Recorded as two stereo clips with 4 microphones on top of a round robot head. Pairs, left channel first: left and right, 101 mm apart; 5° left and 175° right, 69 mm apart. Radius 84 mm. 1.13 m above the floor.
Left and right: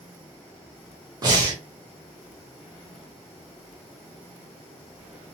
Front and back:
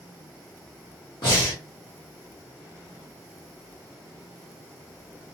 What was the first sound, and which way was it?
Breathing, 35° right.